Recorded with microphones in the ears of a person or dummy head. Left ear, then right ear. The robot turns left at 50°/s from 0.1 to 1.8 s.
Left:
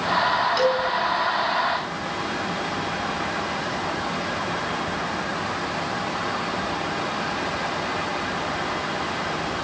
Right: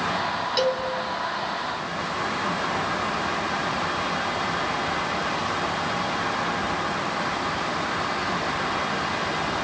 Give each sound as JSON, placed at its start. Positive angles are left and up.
{"t": 0.6, "sound": "a cowbell", "side_deg": -15, "distance_m": 3.0}